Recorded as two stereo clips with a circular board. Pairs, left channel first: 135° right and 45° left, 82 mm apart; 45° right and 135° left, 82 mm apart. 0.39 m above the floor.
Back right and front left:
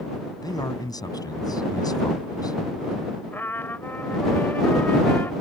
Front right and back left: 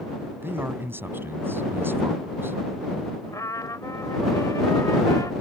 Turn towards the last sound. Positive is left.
turn(degrees=-75)